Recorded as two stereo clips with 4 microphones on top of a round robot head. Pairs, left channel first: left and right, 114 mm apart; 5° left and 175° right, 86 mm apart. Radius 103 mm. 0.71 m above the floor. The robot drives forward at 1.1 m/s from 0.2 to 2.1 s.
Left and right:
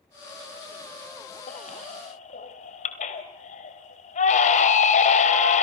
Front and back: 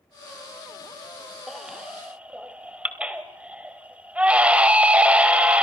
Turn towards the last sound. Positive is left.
turn(degrees=105)